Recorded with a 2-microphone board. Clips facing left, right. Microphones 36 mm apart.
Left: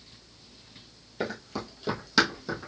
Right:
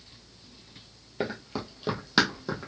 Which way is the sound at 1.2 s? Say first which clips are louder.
Right 1 dB; 20° right (ahead or behind).